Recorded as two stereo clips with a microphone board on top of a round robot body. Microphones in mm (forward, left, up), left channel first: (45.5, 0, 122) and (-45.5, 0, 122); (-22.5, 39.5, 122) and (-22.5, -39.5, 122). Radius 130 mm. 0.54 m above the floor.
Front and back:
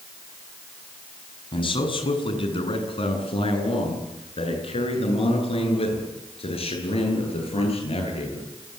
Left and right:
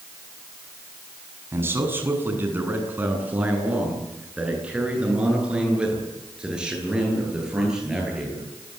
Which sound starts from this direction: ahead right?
A man speaking, at 1.5 s.